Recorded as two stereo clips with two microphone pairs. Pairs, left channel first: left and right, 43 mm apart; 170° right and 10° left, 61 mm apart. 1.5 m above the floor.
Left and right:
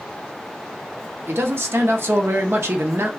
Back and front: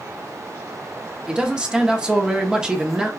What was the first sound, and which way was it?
A man speaking, 65° right.